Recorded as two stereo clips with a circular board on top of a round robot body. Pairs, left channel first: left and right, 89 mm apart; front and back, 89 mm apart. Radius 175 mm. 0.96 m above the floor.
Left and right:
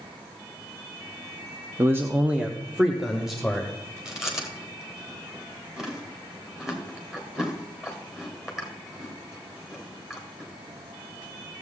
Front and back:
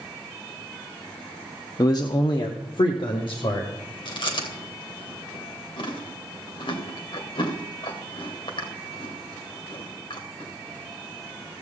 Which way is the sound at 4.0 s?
5° right.